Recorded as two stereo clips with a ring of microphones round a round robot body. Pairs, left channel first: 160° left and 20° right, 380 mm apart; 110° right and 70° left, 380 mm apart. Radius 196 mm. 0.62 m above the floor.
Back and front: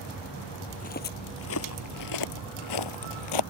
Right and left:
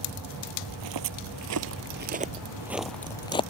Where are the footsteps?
90° left; by 3.4 s 170° left.